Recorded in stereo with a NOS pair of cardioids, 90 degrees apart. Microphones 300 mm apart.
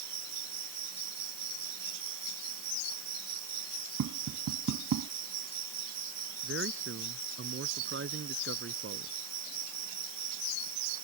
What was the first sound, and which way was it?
An insect, 65° right.